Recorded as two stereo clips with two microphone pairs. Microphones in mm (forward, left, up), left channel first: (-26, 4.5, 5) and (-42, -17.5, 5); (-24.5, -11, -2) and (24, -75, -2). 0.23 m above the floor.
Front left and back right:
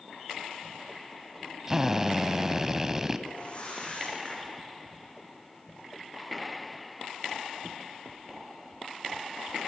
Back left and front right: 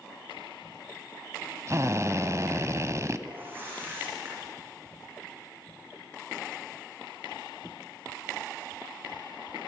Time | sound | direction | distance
1.7 | a drill | 65° right | 1.3 m
3.3 | a whoosh | 10° left | 8.5 m